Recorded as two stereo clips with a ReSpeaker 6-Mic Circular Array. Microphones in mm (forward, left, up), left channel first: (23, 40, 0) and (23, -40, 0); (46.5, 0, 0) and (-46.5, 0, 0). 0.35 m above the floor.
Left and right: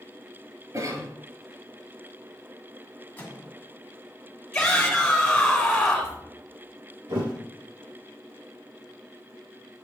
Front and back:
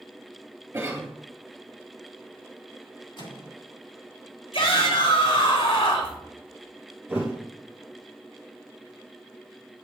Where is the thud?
110° right, 4 m.